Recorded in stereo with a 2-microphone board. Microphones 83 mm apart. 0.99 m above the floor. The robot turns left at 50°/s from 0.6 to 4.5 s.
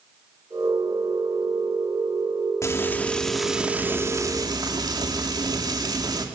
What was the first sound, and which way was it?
Frying, 40° left.